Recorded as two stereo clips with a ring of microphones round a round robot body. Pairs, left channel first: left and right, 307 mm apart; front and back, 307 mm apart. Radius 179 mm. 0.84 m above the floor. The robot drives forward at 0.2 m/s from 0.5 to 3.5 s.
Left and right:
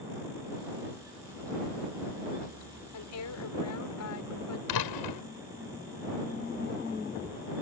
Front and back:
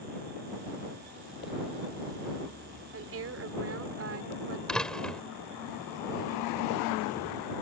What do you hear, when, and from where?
2.9 s a woman speaking: 130° left; by 4.6 s 135° left
4.7 s a door slam: 90° left